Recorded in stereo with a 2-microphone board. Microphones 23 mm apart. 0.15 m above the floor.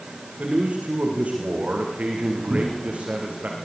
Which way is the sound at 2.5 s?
40° right (ahead or behind).